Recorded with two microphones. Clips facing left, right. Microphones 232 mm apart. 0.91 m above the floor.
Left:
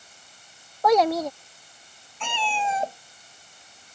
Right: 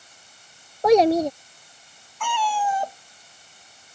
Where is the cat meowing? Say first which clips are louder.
Right 3 dB; 25° left (ahead or behind).